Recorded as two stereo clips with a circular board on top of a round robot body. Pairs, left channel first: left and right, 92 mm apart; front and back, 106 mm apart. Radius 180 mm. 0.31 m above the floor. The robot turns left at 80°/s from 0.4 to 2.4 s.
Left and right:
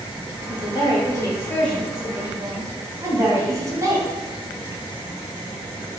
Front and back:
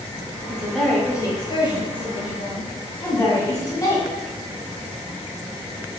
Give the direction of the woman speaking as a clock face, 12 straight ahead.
8 o'clock.